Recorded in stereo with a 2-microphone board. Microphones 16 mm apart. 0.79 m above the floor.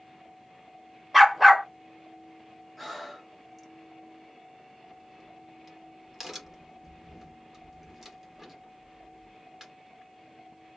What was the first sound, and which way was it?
A dog barking, 10° right (ahead or behind).